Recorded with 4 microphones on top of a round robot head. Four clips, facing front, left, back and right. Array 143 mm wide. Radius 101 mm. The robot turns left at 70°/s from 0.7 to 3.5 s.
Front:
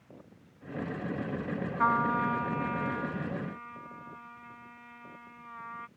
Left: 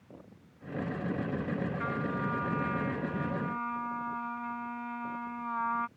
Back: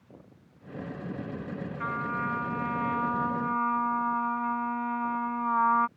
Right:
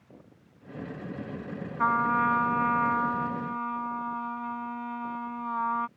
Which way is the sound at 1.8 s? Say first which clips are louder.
Right 9 dB, front 6 dB; 45° right.